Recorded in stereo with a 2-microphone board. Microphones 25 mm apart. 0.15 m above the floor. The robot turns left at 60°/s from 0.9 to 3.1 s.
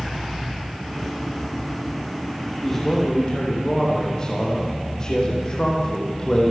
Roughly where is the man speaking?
Centre.